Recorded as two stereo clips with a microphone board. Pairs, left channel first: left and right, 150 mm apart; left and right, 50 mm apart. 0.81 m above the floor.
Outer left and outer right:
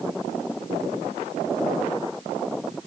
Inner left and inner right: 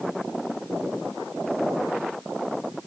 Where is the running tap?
No running tap in this recording.